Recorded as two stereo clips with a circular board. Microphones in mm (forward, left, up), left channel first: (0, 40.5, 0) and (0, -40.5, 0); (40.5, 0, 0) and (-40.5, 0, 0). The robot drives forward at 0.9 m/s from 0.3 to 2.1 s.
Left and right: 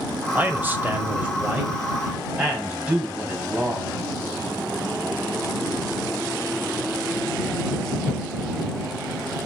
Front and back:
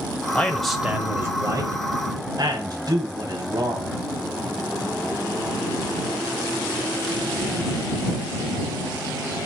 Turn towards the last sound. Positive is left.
turn(degrees=-165)